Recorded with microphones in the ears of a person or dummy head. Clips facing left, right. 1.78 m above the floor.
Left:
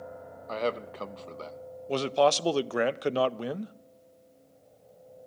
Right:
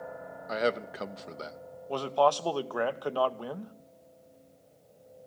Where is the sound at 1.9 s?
30° left (ahead or behind), 0.5 m.